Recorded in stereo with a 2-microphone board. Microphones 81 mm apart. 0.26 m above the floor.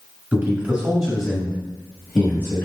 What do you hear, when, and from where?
0.3 s a man speaking: 25° right (ahead or behind), 1.1 m; by 2.7 s 35° left (ahead or behind), 1.2 m